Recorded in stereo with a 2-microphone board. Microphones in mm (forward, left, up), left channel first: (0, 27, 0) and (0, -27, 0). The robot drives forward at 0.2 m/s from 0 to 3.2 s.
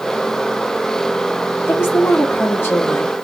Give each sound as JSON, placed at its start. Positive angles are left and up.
{"t": 1.7, "sound": "a woman speaking", "side_deg": 50, "distance_m": 1.2}